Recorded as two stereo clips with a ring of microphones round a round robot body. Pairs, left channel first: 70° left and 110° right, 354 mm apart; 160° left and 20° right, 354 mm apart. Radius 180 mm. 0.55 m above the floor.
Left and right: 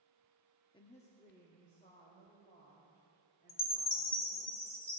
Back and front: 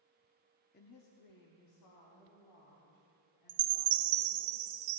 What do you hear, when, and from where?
0.7 s a woman speaking: 130° left, 0.6 m; by 4.5 s 135° left, 5 m
3.5 s a chime: 5° right, 0.7 m